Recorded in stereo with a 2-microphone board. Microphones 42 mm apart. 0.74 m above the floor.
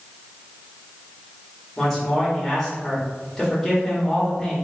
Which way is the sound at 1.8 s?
10° left (ahead or behind).